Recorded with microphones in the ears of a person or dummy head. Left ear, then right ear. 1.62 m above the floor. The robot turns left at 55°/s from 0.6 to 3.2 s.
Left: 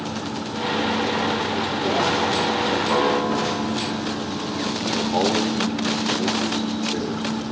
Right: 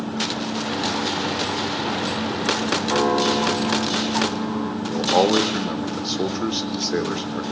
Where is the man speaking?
50° right (ahead or behind), 0.8 m.